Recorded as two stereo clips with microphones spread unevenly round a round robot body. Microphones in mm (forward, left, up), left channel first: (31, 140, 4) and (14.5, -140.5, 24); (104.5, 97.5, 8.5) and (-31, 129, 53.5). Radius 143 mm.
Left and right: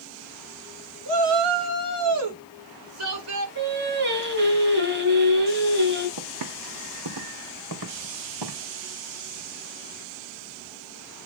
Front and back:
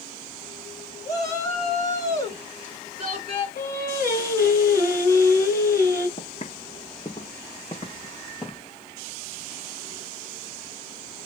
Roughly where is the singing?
Behind right.